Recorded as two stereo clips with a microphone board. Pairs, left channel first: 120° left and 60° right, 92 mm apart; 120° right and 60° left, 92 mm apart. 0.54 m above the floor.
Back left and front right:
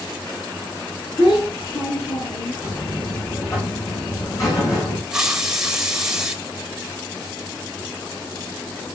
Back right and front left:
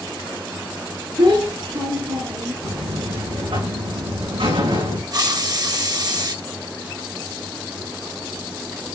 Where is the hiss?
25° left, 1.6 m.